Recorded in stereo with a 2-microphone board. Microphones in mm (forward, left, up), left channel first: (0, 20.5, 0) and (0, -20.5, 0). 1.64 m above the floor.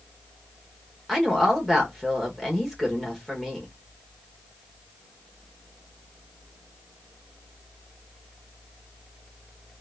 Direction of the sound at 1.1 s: Centre (ahead or behind).